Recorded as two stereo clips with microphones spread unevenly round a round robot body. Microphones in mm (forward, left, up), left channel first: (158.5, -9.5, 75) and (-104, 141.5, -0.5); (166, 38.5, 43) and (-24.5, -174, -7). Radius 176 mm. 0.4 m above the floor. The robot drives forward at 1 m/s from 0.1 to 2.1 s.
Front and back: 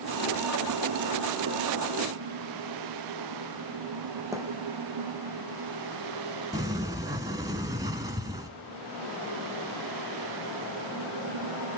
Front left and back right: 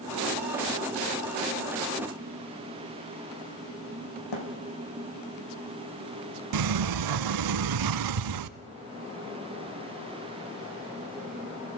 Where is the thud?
70° left, 4.5 m.